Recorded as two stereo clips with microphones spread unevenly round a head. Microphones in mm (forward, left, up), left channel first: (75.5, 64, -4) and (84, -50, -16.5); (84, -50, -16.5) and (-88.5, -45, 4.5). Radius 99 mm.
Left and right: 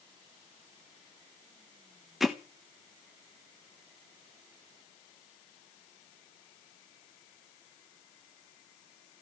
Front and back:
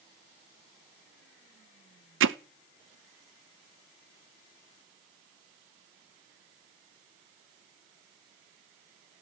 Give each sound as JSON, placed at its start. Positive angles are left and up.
{"t": 2.2, "sound": "hammering", "azimuth_deg": -175, "distance_m": 1.0}